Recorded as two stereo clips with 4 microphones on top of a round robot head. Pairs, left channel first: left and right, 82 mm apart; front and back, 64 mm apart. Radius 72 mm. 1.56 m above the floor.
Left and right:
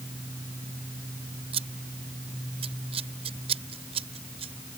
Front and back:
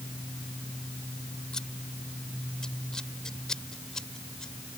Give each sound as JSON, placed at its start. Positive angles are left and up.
{"t": 1.5, "sound": "scissors", "azimuth_deg": -85}